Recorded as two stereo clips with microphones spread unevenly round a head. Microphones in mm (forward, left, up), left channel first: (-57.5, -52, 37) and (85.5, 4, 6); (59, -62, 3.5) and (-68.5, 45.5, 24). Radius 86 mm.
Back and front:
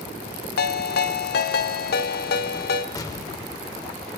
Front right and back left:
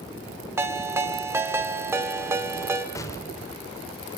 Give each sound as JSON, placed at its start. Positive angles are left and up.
{"t": 0.6, "sound": "a ringtone", "azimuth_deg": -145, "distance_m": 1.8}
{"t": 3.0, "sound": "an explosion", "azimuth_deg": -115, "distance_m": 1.2}